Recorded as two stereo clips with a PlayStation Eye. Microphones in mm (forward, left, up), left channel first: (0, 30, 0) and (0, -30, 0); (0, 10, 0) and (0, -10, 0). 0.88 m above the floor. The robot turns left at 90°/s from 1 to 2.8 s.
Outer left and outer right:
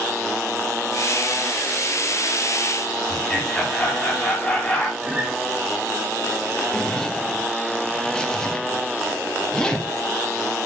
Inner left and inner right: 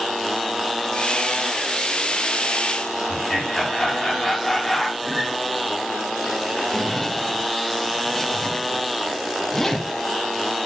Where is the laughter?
15° left (ahead or behind), 6.5 m.